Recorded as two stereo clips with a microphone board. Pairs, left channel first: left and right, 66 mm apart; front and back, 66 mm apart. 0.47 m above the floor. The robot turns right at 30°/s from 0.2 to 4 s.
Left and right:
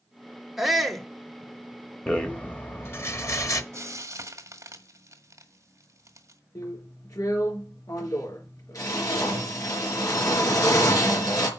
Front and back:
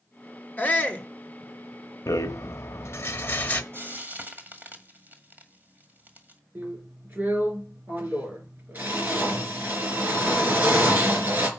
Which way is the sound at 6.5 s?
120° left.